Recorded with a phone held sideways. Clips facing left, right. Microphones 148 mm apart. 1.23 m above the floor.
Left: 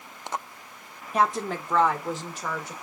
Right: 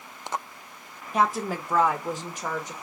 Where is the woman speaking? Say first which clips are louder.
Even; centre (ahead or behind), 1.1 m; by 2.7 s 15° right (ahead or behind), 2 m.